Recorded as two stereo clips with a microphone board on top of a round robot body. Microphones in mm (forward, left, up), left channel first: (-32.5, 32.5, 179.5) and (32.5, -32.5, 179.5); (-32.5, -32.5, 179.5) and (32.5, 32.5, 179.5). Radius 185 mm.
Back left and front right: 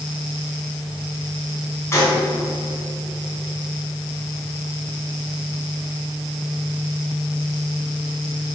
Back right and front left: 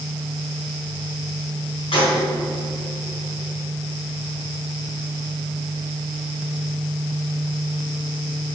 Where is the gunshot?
160° right, 3 m.